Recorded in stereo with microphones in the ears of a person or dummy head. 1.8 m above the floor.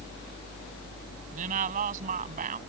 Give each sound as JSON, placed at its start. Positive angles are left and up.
{"t": 1.3, "sound": "a woman speaking", "side_deg": -50}